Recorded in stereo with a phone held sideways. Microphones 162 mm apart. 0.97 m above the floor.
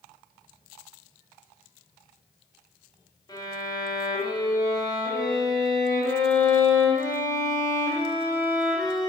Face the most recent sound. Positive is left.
turn(degrees=25)  # may be behind; listen again after turning